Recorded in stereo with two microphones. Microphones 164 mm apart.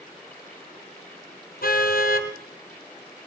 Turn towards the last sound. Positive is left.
turn(degrees=65)  # may be behind; listen again after turning